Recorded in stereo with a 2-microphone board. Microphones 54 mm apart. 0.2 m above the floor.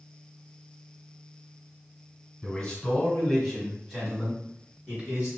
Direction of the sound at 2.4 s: 15° left (ahead or behind).